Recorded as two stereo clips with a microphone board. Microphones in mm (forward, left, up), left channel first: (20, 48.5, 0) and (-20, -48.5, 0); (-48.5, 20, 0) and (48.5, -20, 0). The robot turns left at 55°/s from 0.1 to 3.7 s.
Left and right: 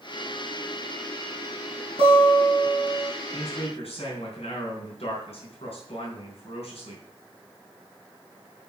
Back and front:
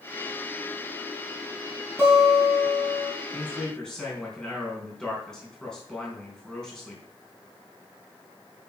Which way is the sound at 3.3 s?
95° left.